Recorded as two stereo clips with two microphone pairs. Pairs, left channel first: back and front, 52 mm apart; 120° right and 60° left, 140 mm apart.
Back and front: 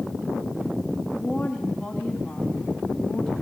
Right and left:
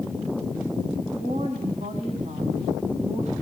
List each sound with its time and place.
1.1 s a woman speaking: 100° left, 3 m